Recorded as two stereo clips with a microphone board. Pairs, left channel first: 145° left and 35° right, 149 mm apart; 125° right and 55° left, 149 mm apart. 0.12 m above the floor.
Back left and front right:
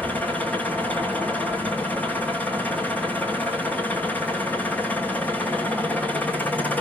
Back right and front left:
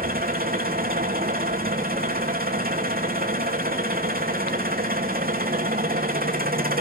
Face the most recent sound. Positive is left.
turn(degrees=65)